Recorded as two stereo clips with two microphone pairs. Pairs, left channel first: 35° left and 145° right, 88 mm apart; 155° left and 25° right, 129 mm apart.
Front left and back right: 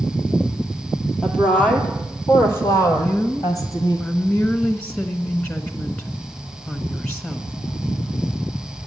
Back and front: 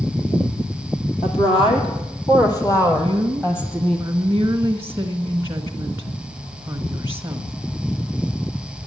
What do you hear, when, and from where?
1.2 s a woman speaking: 120° left, 3 m; by 4.0 s 75° left, 3.5 m
3.0 s a woman speaking: 30° right, 1.1 m